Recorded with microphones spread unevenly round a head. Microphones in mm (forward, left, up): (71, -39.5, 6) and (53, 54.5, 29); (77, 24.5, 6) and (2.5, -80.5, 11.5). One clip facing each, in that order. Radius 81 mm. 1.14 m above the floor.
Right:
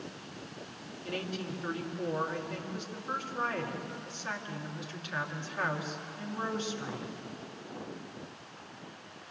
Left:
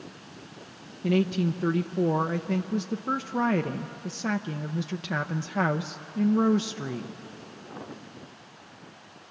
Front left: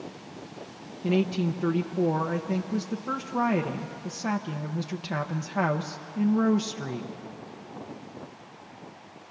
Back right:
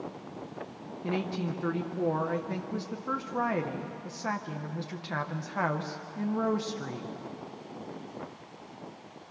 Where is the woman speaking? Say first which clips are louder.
Left 13 dB, front left 7 dB; 125° left, 0.7 m.